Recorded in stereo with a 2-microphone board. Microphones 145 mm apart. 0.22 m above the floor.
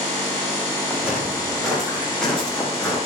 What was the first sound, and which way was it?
Footsteps, 5° right (ahead or behind).